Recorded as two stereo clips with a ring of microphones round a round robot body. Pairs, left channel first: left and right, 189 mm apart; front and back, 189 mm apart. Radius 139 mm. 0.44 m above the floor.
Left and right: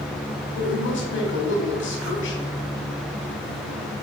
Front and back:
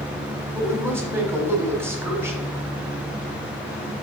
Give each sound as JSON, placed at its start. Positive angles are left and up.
{"t": 0.5, "sound": "a woman speaking", "azimuth_deg": 100, "distance_m": 3.0}